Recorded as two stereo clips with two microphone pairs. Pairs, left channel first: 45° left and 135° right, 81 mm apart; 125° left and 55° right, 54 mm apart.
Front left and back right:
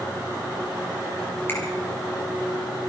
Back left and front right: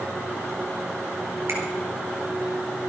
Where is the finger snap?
20° right, 5.5 m.